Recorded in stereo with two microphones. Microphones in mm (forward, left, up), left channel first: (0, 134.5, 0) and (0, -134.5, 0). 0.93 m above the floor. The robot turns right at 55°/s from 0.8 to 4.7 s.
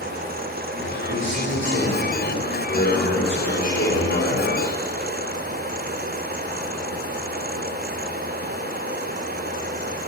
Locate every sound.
1.1 s a man speaking: 70° right, 3 m; by 4.7 s 130° left, 3 m